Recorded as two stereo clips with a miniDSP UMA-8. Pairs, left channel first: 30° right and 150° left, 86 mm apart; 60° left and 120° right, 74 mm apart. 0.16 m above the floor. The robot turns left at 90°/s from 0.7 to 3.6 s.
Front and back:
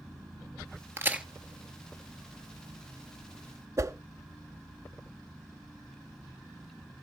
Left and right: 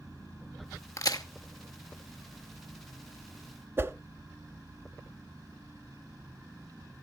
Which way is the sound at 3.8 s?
170° right.